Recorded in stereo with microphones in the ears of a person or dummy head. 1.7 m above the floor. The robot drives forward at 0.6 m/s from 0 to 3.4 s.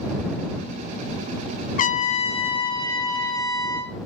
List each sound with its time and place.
1.8 s a trumpet: 45° left (ahead or behind), 0.5 m; by 4.0 s 15° left (ahead or behind), 1.4 m